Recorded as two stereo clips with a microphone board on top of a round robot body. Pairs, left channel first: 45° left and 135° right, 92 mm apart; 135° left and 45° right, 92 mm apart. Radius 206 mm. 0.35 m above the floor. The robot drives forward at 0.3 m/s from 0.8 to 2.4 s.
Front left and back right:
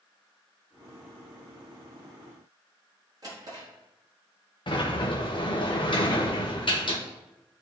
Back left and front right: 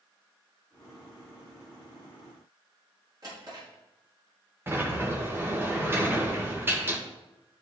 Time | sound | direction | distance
3.2 | a drawer | 90° right | 4 m
4.7 | a sliding door | 20° left | 1.6 m